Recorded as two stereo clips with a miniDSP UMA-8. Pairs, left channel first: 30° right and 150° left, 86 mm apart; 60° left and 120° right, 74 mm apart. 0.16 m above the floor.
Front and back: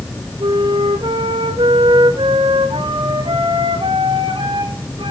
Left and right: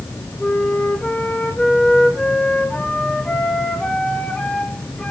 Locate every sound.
0.4 s a flute: 140° left, 1.9 m